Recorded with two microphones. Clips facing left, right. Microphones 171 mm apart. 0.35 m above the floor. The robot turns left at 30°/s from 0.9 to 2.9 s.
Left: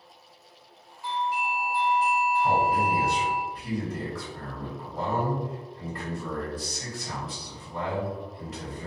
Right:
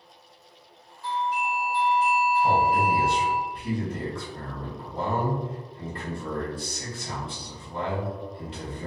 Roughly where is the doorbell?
Centre.